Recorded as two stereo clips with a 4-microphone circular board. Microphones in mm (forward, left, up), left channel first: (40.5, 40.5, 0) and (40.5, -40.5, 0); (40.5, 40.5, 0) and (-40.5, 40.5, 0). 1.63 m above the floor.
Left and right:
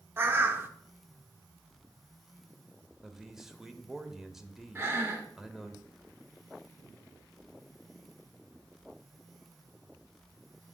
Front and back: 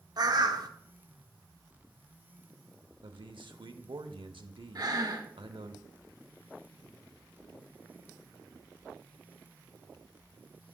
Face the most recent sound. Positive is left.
turn(degrees=-150)